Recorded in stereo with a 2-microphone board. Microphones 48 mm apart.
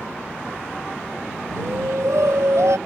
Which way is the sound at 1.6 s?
75° right (ahead or behind).